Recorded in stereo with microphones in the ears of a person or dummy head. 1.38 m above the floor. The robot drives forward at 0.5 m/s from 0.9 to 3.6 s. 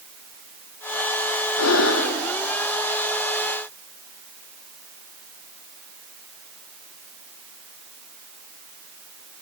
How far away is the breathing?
About 1.3 m.